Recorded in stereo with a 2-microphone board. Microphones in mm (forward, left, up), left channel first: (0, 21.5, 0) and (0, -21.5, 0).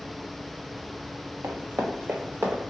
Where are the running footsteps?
85° right, 1.1 m; by 2.6 s 55° right (ahead or behind), 1.2 m.